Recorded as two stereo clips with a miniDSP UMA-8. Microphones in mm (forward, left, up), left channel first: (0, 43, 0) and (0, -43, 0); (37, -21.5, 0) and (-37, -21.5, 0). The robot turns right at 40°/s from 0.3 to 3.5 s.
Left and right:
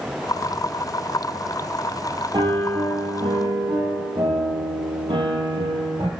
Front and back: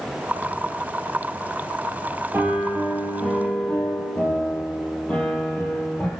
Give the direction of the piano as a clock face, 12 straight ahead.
4 o'clock.